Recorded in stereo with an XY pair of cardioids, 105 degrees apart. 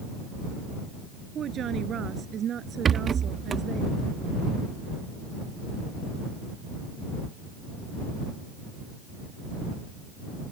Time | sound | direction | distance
1.4 | a woman speaking | 55° right | ?
2.9 | a rattle | 45° right | ?